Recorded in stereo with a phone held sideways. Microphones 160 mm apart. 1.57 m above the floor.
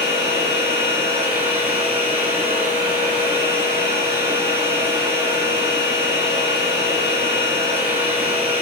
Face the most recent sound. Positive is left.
turn(degrees=-35)  # may be behind; listen again after turning